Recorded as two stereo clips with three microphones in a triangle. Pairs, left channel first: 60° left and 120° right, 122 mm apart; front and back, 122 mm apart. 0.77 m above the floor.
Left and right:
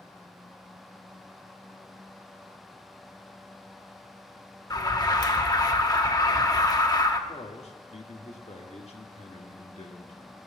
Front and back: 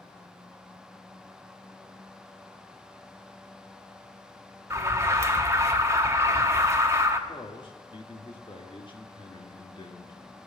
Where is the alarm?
115° left, 1.1 m.